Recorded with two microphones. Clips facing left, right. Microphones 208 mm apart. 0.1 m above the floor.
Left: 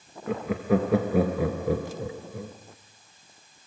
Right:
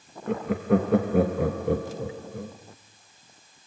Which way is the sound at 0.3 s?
Centre (ahead or behind).